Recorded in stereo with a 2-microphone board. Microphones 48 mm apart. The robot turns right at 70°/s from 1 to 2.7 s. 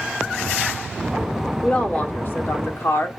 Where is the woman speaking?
20° left, 1.4 m; by 3.1 s 95° left, 1.4 m.